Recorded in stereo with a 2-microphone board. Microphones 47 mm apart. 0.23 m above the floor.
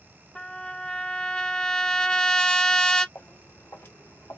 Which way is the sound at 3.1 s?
60° left (ahead or behind).